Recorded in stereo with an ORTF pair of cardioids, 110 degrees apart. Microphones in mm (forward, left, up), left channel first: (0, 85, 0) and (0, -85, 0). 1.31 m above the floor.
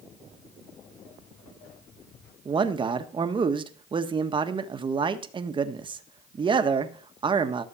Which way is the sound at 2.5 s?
30° right.